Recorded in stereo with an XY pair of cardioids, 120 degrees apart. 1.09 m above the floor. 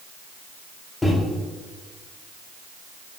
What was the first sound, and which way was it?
A microwave, 15° left.